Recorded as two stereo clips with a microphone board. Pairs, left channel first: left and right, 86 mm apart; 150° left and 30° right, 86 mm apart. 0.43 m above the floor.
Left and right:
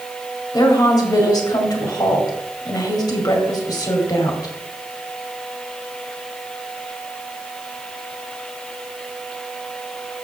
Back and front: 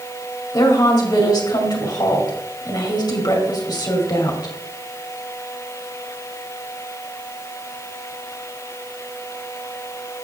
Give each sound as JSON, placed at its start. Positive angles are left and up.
{"t": 0.5, "sound": "a woman speaking", "azimuth_deg": 120, "distance_m": 2.0}